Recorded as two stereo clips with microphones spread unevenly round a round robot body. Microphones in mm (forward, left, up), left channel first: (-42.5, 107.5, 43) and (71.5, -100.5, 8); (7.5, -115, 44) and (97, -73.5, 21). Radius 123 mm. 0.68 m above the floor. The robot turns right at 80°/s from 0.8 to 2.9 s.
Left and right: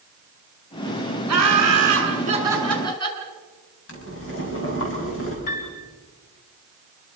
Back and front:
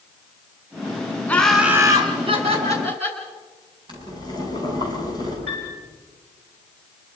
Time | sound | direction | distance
1.3 | laughter | 80° right | 6 m
3.9 | boiling | 80° left | 6 m
5.5 | a piano | 125° left | 5.5 m